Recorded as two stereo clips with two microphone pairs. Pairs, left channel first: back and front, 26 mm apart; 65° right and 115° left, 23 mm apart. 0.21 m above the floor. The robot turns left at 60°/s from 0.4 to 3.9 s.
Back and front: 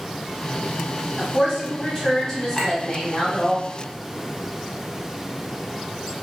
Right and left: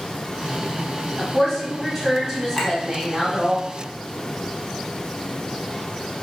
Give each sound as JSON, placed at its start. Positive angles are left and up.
{"t": 1.2, "sound": "a woman speaking", "azimuth_deg": -115, "distance_m": 1.6}
{"t": 2.5, "sound": "a clink", "azimuth_deg": -135, "distance_m": 0.6}